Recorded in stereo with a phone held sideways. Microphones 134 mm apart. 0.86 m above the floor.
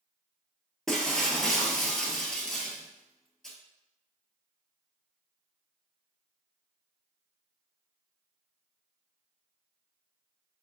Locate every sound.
0.9 s breaking glass: 5° left (ahead or behind), 0.9 m